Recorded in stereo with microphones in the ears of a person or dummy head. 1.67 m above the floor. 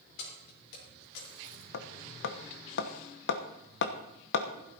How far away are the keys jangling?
About 4.5 m.